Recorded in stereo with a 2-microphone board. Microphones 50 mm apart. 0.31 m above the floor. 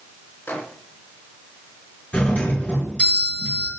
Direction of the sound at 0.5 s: 50° left (ahead or behind).